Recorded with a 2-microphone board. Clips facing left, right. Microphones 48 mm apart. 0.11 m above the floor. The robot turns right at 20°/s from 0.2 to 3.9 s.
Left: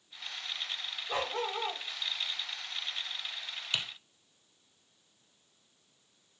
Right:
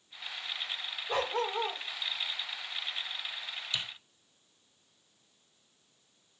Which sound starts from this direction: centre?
A dog barking, at 1.1 s.